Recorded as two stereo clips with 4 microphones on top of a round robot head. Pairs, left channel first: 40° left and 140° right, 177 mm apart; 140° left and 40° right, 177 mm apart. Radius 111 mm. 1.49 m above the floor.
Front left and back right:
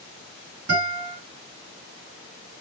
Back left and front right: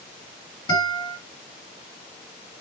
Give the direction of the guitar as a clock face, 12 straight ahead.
5 o'clock.